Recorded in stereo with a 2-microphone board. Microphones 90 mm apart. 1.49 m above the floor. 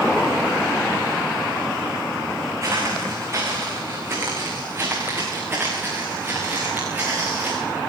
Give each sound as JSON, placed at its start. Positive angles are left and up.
{"t": 2.6, "sound": "footsteps", "side_deg": -35, "distance_m": 9.0}